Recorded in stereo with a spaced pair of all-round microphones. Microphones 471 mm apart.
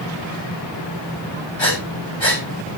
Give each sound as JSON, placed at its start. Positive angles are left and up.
{"t": 1.6, "sound": "breathing", "side_deg": 75, "distance_m": 7.0}